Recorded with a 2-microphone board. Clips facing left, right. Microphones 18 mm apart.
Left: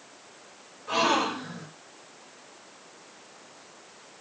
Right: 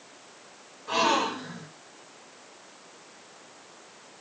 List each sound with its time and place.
0.9 s a gasp: 5° right (ahead or behind), 1.7 m